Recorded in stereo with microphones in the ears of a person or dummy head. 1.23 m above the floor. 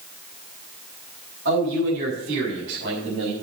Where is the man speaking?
55° right (ahead or behind), 7.5 m; by 3.3 s 60° right (ahead or behind), 5.5 m.